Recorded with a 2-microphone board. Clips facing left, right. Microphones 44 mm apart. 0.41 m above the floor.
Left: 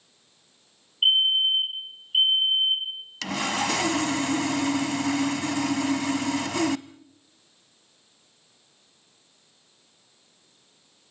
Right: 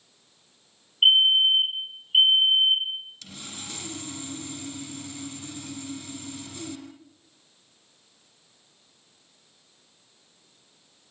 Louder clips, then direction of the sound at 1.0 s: Right 3 dB; 25° right (ahead or behind).